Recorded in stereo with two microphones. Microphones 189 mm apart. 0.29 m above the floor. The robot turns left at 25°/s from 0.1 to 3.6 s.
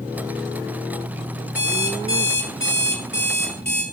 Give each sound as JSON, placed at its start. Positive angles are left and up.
{"t": 1.6, "sound": "an alarm clock", "azimuth_deg": 110, "distance_m": 2.5}